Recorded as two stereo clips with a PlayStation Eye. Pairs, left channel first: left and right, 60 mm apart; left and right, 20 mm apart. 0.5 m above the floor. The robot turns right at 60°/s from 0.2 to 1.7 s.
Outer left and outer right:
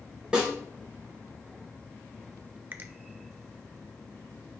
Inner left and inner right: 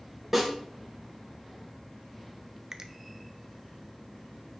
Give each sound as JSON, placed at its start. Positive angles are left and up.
{"t": 0.3, "sound": "a snare drum", "side_deg": -15, "distance_m": 2.5}
{"t": 2.7, "sound": "a finger snap", "side_deg": -35, "distance_m": 0.6}